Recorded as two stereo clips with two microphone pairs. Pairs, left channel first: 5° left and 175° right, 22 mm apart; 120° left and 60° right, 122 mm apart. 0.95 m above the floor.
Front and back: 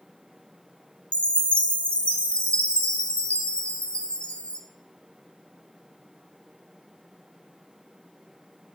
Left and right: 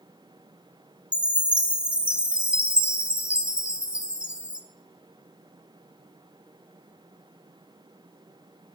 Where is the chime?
20° left, 1.3 m.